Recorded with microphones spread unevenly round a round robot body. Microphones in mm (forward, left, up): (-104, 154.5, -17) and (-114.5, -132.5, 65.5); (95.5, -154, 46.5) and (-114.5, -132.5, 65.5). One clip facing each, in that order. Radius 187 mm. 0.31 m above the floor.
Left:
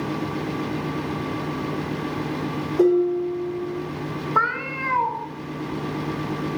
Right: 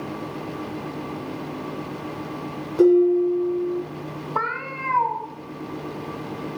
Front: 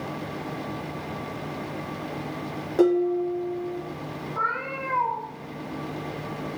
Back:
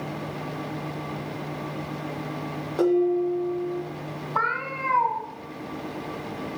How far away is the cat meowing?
About 1.4 m.